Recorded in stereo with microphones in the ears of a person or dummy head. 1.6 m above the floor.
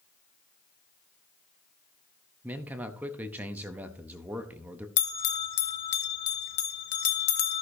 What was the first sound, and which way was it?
A man speaking, 10° right (ahead or behind).